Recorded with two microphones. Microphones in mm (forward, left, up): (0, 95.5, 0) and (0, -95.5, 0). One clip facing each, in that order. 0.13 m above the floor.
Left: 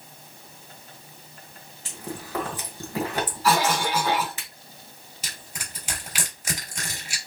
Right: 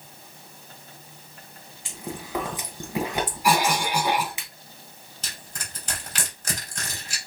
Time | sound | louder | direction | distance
1.9 | chewing | even | 15° right (ahead or behind) | 2 m
3.4 | a cough | even | 15° right (ahead or behind) | 1.4 m
5.2 | crushing | even | 10° left (ahead or behind) | 3.5 m